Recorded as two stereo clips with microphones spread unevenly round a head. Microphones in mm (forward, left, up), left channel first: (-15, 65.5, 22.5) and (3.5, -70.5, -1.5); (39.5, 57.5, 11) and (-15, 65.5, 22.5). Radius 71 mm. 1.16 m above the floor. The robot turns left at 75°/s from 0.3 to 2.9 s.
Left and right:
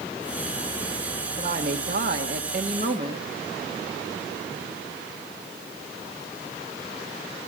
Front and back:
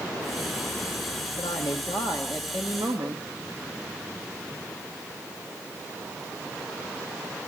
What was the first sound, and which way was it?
A woman speaking, 15° right.